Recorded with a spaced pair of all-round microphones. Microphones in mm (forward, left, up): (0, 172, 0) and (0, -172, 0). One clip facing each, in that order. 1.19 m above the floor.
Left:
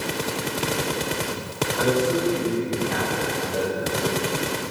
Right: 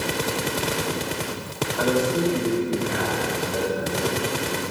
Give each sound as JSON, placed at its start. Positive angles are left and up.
{"t": 1.8, "sound": "a man speaking", "side_deg": 30, "distance_m": 4.0}